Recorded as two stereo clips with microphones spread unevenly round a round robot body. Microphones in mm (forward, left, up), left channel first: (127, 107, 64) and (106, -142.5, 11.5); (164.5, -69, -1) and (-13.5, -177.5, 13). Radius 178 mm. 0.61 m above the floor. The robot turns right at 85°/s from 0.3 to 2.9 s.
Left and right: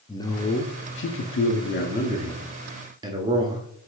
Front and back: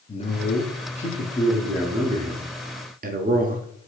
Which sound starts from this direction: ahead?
A man speaking, at 0.1 s.